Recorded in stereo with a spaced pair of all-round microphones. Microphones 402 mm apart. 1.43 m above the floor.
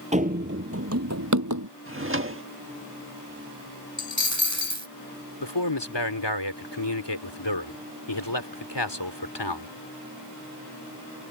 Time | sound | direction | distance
0.1 | running footsteps | 15° right (ahead or behind) | ?
1.9 | a drawer | 30° right (ahead or behind) | ?
4.0 | a dropped coin | 45° right (ahead or behind) | ?
5.4 | a man speaking | 85° left | ?